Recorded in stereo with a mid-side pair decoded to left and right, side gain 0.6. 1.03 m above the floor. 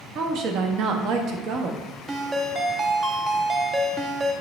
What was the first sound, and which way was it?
A woman speaking, 60° right.